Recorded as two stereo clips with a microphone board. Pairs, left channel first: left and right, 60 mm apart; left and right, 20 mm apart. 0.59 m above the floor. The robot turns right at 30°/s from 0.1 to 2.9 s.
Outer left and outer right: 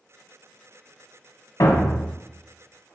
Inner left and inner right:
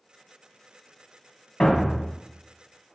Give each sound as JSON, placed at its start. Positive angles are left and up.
{"t": 1.6, "sound": "a thud", "side_deg": 65, "distance_m": 0.8}